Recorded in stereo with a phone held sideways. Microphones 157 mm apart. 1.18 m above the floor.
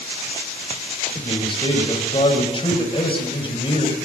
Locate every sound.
1.1 s a man speaking: 35° left (ahead or behind), 5 m